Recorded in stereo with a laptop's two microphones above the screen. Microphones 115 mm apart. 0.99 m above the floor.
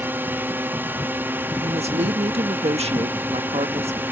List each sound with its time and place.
0.0 s a drone: 20° right (ahead or behind)
1.6 s a woman speaking: 65° right (ahead or behind)